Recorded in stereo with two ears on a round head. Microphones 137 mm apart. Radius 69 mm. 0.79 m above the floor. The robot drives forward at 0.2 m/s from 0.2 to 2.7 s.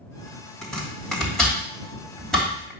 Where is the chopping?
5° left (ahead or behind), 1.8 m.